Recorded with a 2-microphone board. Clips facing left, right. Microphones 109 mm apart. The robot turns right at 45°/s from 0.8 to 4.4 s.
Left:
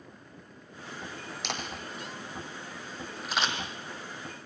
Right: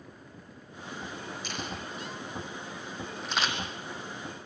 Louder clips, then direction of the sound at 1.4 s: Left 3 dB; 80° left.